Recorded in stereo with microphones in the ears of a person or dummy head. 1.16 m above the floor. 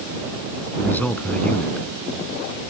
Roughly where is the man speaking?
Centre.